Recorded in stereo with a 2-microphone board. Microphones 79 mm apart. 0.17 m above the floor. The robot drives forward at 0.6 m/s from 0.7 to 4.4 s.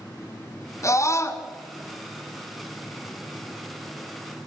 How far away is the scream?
About 1.6 m.